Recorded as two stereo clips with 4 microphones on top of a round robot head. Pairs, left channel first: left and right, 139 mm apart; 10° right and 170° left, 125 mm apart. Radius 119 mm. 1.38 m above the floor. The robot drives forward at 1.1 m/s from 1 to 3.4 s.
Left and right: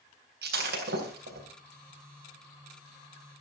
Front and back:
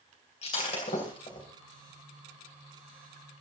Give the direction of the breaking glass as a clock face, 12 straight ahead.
2 o'clock.